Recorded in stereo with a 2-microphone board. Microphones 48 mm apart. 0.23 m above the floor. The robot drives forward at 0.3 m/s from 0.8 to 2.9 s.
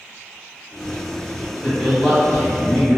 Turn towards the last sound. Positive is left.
turn(degrees=15)  # may be behind; listen again after turning